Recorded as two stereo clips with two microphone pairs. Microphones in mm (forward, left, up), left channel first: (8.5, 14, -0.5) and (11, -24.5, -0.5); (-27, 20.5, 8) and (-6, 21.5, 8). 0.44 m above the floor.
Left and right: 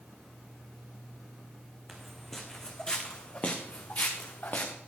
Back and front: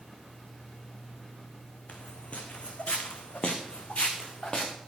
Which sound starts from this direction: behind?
Footsteps, at 1.9 s.